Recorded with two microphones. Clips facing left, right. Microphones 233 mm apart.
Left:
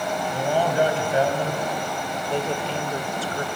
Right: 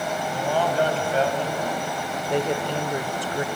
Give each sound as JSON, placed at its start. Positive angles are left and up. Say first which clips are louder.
{"t": 0.3, "sound": "a man speaking", "louder": "left 1 dB", "side_deg": 15, "distance_m": 2.5}
{"t": 2.3, "sound": "a woman speaking", "louder": "right 3 dB", "side_deg": -15, "distance_m": 0.9}